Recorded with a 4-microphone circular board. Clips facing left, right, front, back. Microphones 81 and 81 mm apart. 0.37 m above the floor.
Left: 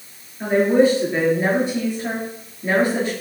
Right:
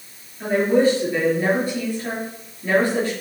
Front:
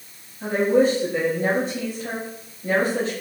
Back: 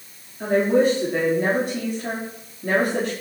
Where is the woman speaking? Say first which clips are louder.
Left 2 dB, even; 160° left, 6.5 m.